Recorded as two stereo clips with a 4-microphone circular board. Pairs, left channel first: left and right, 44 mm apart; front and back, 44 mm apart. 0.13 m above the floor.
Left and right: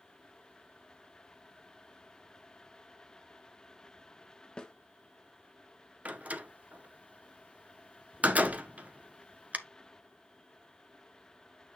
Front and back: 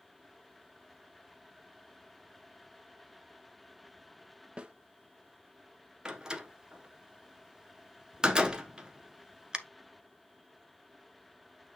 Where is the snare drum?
140° left, 1.1 m.